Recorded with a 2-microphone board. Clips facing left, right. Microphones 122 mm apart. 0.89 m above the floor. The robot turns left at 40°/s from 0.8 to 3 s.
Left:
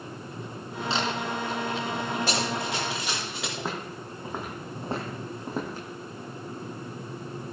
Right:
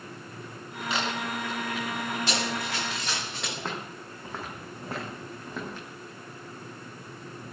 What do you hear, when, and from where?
0.9 s a camera shutter: 30° left (ahead or behind), 6 m; by 1.1 s 25° left (ahead or behind), 6 m
2.3 s running footsteps: 40° left (ahead or behind), 7.5 m; by 3.5 s centre (ahead or behind), 7.5 m
3.6 s footsteps: 10° left (ahead or behind), 3 m; by 5.9 s 40° left (ahead or behind), 3 m